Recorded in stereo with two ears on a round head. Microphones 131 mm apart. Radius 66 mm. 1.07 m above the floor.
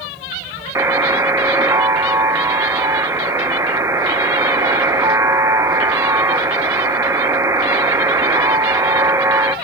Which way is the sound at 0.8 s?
20° right (ahead or behind).